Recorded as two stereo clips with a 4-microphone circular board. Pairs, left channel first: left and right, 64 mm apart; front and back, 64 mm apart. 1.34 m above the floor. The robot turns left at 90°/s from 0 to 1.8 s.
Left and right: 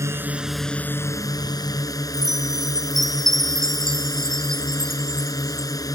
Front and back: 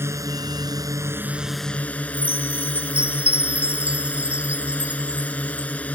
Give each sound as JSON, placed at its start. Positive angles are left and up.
{"t": 0.0, "sound": "a drone", "azimuth_deg": -130}
{"t": 2.1, "sound": "a chime", "azimuth_deg": -110}